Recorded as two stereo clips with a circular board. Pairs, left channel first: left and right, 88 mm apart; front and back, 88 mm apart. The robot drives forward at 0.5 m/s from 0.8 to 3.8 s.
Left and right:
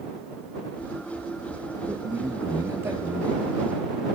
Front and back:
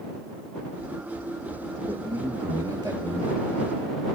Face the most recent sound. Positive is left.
turn(degrees=-155)